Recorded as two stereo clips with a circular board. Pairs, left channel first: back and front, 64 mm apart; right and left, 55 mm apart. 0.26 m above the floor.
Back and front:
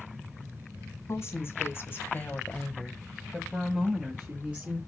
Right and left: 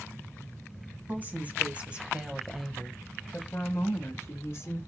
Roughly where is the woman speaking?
Behind left.